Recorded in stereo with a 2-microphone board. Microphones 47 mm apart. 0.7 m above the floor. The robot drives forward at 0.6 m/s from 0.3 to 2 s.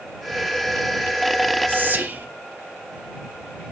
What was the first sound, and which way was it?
Whispering, 45° right (ahead or behind).